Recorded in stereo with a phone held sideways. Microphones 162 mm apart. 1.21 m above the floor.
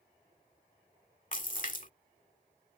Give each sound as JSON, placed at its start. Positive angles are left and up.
{"t": 1.3, "sound": "a splash", "side_deg": 55}